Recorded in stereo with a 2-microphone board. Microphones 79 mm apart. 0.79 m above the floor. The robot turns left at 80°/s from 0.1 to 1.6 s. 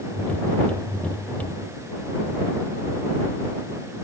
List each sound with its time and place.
Only background noise.